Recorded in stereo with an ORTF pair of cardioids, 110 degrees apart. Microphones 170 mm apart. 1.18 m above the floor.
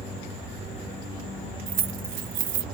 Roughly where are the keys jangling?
Ahead right.